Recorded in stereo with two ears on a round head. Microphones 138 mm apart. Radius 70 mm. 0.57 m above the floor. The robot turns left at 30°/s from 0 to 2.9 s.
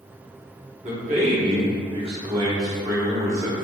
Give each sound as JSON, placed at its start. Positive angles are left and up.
{"t": 0.8, "sound": "a man speaking", "azimuth_deg": -90, "distance_m": 0.9}